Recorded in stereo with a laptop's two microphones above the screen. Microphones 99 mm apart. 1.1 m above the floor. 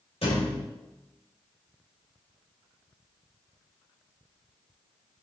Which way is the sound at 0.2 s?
70° left (ahead or behind).